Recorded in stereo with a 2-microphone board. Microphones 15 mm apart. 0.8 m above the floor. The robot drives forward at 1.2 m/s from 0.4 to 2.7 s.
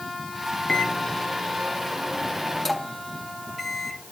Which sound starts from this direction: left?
A microwave, at 0.7 s.